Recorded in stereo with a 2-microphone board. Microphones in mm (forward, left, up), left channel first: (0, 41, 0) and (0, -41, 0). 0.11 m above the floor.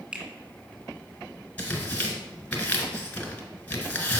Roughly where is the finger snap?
Centre.